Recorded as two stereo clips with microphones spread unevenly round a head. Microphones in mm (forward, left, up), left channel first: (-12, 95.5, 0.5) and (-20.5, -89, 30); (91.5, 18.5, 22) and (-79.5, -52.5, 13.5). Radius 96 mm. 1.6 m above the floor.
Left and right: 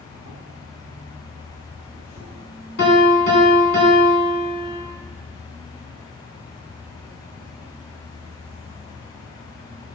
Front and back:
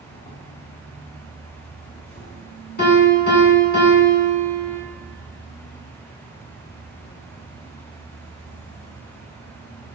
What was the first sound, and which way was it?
An insect, 10° right.